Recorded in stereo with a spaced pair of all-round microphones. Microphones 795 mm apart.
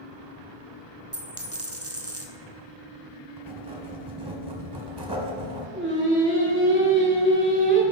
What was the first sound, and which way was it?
A dropped coin, 20° right (ahead or behind).